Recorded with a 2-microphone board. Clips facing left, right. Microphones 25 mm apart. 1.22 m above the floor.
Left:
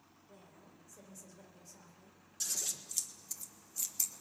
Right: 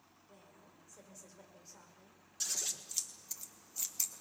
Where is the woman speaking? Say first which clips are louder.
Left 2 dB; centre (ahead or behind), 5 m; by 2.2 s 35° right (ahead or behind), 5 m.